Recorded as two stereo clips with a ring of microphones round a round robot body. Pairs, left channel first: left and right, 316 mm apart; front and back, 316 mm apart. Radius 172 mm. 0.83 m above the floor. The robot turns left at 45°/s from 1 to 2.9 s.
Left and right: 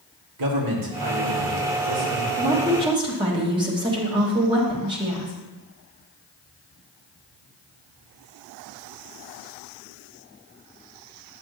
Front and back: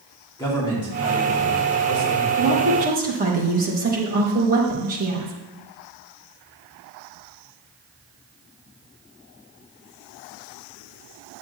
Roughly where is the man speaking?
Right.